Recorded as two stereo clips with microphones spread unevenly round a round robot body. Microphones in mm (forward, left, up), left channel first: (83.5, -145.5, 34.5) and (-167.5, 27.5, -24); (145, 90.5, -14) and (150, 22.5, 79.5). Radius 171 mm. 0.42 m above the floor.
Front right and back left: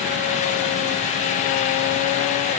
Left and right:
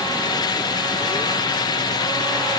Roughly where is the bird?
I don't hear a bird.